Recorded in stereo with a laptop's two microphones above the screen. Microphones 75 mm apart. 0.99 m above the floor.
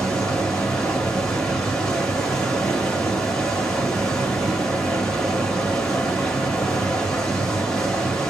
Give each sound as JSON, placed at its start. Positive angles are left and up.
{"t": 0.0, "sound": "running water", "side_deg": 10, "distance_m": 2.0}